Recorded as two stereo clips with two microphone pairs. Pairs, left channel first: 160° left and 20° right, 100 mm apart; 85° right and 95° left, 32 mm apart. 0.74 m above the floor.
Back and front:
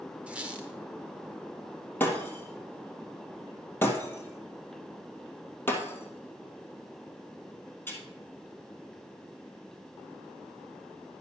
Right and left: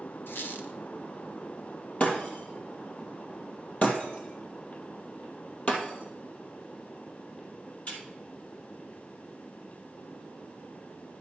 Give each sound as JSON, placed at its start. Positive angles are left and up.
{"t": 0.3, "sound": "a squeak", "azimuth_deg": -100, "distance_m": 1.1}
{"t": 2.0, "sound": "breaking glass", "azimuth_deg": -135, "distance_m": 2.0}